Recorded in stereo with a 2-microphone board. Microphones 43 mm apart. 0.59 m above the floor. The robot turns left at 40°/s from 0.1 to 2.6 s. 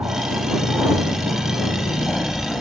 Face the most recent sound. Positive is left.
turn(degrees=170)